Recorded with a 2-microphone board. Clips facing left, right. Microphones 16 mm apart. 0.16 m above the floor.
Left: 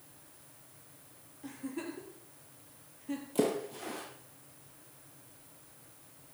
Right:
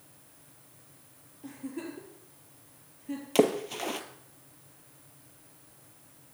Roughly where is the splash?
Right.